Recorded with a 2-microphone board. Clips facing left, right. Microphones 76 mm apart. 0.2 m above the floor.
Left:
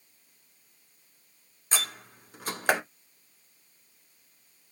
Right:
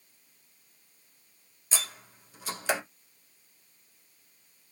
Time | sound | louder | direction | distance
1.7 | a door slam | left 4 dB | 50° left (ahead or behind) | 1.7 m